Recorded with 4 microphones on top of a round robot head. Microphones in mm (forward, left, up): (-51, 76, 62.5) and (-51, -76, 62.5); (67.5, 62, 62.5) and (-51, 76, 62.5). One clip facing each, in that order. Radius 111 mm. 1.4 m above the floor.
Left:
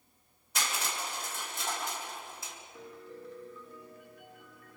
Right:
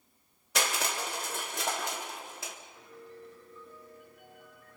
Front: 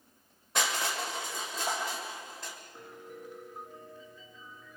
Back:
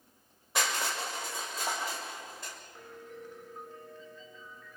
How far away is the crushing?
About 1.6 m.